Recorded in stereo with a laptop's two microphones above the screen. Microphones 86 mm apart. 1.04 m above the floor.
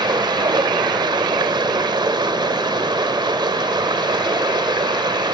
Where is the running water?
60° right (ahead or behind), 2.5 m.